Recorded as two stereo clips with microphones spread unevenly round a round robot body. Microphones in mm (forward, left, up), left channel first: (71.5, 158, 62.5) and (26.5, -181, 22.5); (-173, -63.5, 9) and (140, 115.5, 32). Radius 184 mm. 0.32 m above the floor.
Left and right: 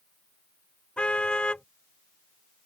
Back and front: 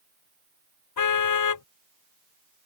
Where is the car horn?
170° left.